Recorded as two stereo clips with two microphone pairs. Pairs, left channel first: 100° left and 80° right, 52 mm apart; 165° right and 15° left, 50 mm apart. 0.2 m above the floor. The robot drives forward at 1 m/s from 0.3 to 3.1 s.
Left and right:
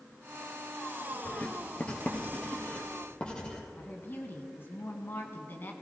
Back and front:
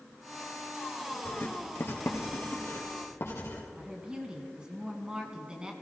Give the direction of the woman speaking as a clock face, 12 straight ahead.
9 o'clock.